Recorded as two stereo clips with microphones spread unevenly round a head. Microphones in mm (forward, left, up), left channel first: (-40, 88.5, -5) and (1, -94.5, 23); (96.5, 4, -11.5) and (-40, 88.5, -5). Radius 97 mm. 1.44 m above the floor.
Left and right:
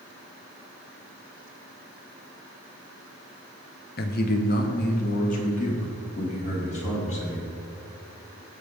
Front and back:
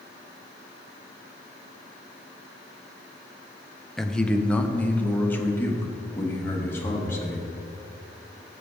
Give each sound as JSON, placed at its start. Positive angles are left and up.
{"t": 4.0, "sound": "a man speaking", "azimuth_deg": 55, "distance_m": 0.7}